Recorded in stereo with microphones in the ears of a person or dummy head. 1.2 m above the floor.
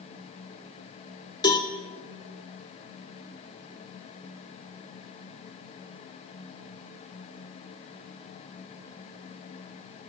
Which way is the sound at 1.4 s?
20° left (ahead or behind).